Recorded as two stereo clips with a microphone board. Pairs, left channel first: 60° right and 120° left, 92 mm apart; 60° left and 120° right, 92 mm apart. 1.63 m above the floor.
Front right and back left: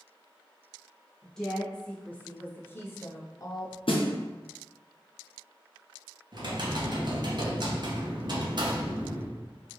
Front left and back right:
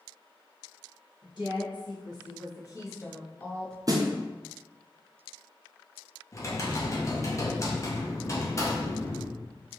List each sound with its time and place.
1.2 s a woman speaking: 25° left, 1.7 m; by 3.8 s 25° right, 0.8 m
3.9 s a snare drum: 70° right, 0.7 m
6.3 s typing on a keyboard: 105° left, 0.9 m